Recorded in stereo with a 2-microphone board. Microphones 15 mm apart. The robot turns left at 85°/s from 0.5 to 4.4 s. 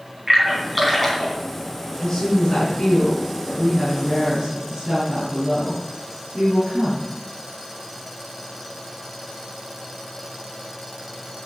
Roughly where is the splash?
Right.